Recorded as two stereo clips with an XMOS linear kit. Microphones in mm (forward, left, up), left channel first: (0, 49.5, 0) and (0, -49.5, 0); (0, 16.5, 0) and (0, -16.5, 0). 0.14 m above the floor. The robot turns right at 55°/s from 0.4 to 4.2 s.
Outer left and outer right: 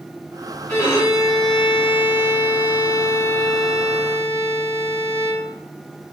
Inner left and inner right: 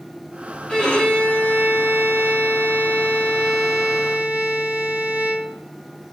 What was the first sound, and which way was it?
A violin, 15° left.